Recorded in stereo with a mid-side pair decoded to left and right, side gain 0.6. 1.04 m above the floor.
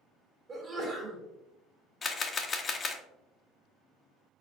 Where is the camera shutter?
30° left, 0.8 m.